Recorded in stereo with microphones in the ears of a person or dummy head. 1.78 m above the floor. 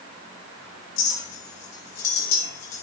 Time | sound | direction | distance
1.0 | a clink | 75° left (ahead or behind) | 6 m